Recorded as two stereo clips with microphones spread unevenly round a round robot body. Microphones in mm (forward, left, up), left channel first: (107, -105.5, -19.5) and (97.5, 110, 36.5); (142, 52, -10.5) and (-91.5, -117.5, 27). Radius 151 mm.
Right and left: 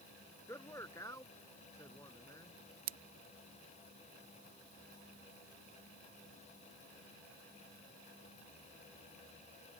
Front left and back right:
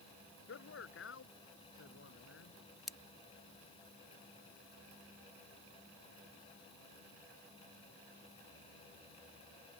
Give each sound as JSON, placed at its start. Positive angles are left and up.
{"t": 0.5, "sound": "a man speaking", "azimuth_deg": -10}
{"t": 2.9, "sound": "scissors", "azimuth_deg": 125}